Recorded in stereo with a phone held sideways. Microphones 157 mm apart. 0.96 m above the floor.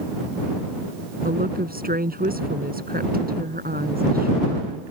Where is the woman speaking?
75° right (ahead or behind).